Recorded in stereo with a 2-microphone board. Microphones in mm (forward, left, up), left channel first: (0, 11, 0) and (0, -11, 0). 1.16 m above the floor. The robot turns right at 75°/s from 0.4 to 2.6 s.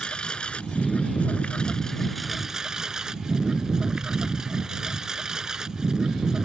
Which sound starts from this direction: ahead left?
A lawn mower, at 0.0 s.